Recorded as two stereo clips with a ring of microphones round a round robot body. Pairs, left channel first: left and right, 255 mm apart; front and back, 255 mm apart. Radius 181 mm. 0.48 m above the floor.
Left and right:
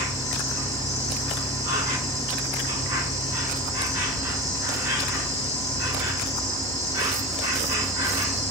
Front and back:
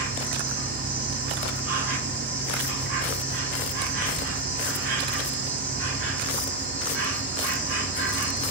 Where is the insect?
160° right, 1.5 m.